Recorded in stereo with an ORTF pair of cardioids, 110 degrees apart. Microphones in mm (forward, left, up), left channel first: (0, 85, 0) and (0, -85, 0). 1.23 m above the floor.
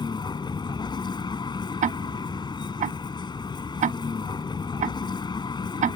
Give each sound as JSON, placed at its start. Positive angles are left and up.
{"t": 0.0, "sound": "a vehicle", "azimuth_deg": 25}
{"t": 1.8, "sound": "ticking", "azimuth_deg": -50}